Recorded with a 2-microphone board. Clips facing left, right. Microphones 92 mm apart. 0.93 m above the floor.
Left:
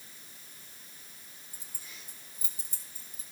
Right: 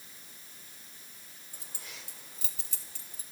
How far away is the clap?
I don't hear a clap.